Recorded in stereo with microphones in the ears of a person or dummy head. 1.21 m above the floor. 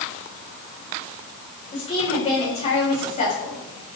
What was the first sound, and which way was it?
A woman speaking, 30° left (ahead or behind).